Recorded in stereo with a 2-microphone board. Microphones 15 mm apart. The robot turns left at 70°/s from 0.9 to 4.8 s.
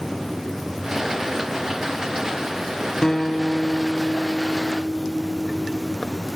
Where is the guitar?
115° left, 0.7 m; by 6.0 s 10° right, 0.7 m.